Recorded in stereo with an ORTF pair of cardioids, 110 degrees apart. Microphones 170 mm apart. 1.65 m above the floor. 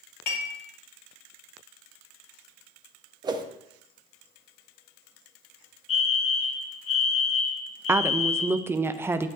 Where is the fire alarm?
40° left, 2.5 m.